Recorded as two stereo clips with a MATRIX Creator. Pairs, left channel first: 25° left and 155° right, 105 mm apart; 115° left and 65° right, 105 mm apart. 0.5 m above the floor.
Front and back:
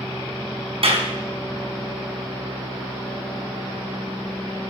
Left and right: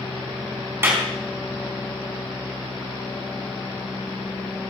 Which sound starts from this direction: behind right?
A clap, at 0.8 s.